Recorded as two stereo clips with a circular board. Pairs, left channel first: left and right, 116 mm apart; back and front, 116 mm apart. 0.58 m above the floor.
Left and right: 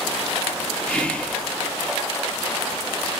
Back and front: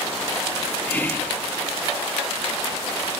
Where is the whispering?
150° left, 0.8 m.